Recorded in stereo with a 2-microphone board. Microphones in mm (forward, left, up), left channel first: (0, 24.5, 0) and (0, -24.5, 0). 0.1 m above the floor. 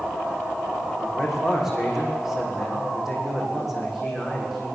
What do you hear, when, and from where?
1.0 s a man speaking: 10° right (ahead or behind), 6 m